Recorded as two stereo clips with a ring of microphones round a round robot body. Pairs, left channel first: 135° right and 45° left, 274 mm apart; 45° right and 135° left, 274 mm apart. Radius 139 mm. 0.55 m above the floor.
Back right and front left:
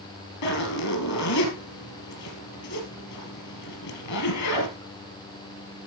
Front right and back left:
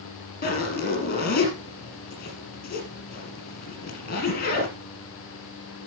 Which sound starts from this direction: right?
A zipper, at 0.4 s.